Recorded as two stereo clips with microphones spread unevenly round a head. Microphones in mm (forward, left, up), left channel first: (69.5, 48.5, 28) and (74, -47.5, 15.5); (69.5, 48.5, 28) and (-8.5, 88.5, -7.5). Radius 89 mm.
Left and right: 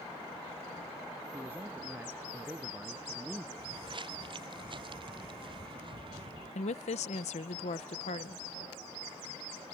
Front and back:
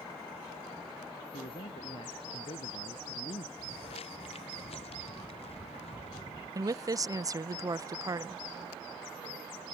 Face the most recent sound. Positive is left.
turn(degrees=110)